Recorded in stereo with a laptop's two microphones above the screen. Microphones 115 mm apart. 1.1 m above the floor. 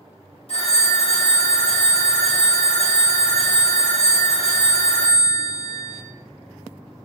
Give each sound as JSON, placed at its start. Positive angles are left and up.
{"t": 0.5, "sound": "a phone ringing", "side_deg": 60, "distance_m": 0.7}